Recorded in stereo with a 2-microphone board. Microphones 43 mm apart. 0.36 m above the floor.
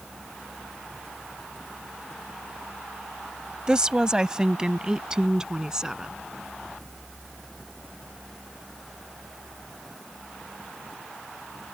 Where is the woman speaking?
20° right (ahead or behind).